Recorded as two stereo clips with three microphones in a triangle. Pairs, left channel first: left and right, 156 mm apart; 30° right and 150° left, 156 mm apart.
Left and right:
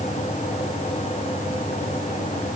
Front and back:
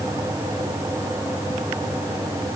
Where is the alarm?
I don't hear an alarm.